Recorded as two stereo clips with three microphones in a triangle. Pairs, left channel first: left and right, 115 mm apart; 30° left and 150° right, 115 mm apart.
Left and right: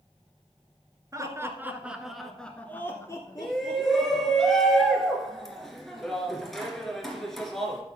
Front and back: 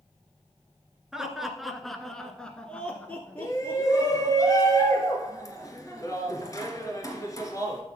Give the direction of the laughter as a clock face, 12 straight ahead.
2 o'clock.